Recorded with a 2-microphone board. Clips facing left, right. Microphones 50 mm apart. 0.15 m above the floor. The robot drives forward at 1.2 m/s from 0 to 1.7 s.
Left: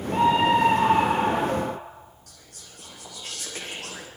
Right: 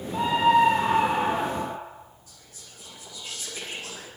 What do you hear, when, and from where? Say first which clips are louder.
0.1 s a scream: even; 60° left (ahead or behind), 4 m; by 1.8 s 45° left (ahead or behind), 5 m
2.3 s whispering: left 1 dB; 65° left (ahead or behind), 9.5 m